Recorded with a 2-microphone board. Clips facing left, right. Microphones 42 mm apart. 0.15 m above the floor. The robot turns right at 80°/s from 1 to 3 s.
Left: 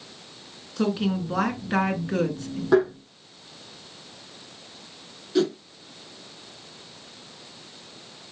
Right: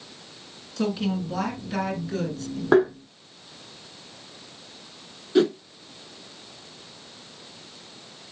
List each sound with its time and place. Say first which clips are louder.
0.8 s a woman speaking: left 1 dB; 30° left, 1.5 m; by 2.6 s 160° left, 1.5 m
2.7 s tapping: right 1 dB; 35° right (ahead or behind), 3.5 m; by 2.9 s 45° right (ahead or behind), 3.5 m
5.3 s a whoosh: right 3 dB; 25° right (ahead or behind), 0.7 m